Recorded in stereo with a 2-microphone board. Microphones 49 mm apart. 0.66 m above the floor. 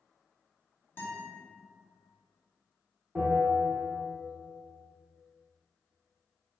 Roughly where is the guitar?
Left.